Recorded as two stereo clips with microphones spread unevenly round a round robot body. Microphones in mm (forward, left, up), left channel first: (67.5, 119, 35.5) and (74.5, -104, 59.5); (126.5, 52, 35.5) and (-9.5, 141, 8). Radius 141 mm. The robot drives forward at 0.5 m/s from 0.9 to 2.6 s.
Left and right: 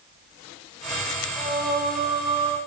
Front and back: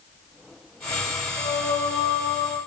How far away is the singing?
About 1.1 m.